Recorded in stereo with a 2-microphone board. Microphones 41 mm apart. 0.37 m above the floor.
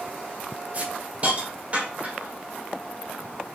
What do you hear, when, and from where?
0.7 s a hiss: 35° right (ahead or behind), 1.1 m